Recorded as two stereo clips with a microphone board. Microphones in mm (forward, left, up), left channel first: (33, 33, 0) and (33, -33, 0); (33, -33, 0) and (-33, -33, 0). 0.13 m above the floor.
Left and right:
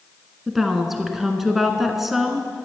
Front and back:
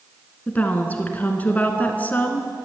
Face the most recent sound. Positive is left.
turn(degrees=-10)